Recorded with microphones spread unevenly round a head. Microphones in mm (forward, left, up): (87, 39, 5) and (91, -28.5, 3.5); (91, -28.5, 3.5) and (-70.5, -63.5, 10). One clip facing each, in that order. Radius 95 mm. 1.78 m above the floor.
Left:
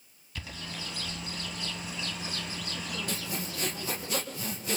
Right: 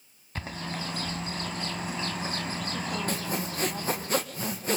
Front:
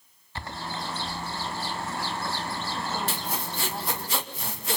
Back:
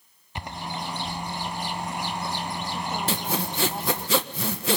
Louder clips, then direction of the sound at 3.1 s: Right 5 dB, back 5 dB; 160° right.